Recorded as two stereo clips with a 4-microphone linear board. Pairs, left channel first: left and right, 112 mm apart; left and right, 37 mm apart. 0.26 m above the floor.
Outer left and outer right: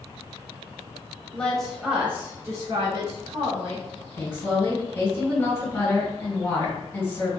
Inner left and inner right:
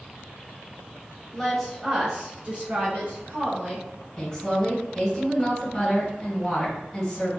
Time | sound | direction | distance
1.3 | a woman speaking | 10° left (ahead or behind) | 1.0 m
4.2 | a woman speaking | 20° left (ahead or behind) | 1.5 m